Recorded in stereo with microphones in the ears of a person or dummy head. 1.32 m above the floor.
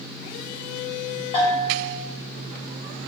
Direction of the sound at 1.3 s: 35° left (ahead or behind).